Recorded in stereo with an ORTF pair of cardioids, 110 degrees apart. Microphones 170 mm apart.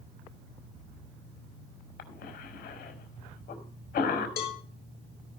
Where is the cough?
65° left, 4.5 m.